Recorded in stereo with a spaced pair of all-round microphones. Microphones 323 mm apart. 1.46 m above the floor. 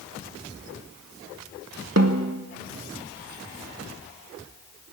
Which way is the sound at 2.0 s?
50° right (ahead or behind).